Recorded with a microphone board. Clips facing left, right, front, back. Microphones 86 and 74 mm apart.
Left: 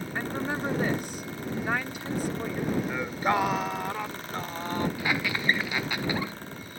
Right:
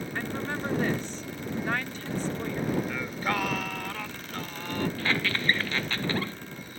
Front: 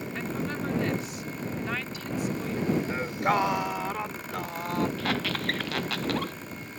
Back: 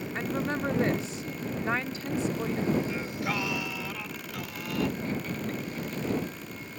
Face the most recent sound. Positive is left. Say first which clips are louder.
# even, front 3 dB
turn(degrees=10)